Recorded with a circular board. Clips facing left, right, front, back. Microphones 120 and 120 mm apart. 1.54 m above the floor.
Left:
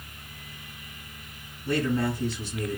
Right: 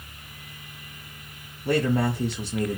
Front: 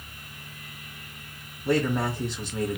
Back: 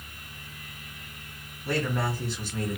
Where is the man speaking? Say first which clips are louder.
Right 3 dB, front 4 dB; 70° right, 0.9 m.